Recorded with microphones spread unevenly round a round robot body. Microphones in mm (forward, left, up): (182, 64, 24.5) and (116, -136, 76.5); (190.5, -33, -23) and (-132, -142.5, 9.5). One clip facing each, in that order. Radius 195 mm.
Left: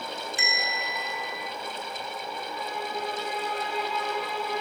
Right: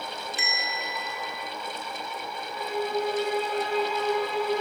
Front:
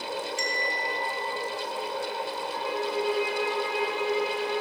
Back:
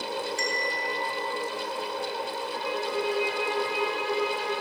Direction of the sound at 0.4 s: 95° left.